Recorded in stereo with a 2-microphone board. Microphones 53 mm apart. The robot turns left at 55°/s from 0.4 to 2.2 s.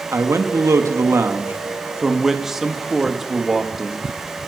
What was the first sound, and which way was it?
A man speaking, 75° right.